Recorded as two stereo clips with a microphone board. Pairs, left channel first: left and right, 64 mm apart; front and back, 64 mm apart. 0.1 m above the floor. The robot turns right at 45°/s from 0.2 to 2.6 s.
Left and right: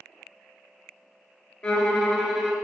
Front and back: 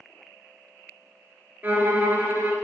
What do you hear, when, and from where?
1.6 s a violin: 150° left, 0.6 m; by 2.5 s 165° right, 0.6 m